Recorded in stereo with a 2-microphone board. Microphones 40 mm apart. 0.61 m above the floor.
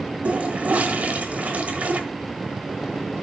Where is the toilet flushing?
40° right (ahead or behind), 1.2 m.